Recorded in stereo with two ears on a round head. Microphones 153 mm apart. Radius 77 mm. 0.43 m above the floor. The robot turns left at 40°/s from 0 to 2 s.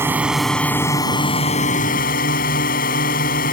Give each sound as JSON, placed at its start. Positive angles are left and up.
{"t": 0.0, "sound": "a drone", "azimuth_deg": -165}